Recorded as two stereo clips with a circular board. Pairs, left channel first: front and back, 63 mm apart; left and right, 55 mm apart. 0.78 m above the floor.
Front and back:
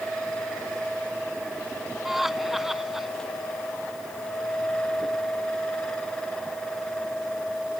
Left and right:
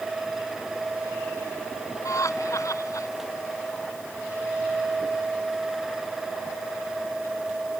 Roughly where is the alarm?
I don't hear an alarm.